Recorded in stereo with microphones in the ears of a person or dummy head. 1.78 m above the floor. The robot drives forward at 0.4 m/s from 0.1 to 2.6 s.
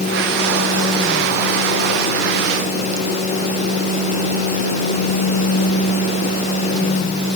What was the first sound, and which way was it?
Only background noise.